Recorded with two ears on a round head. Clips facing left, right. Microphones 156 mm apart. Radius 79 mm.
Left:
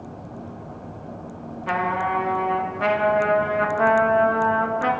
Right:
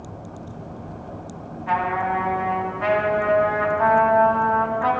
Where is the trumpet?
60° left (ahead or behind), 2.5 m.